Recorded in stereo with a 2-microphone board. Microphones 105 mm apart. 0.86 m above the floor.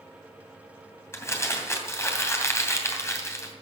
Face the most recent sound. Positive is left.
turn(degrees=25)  # may be behind; listen again after turning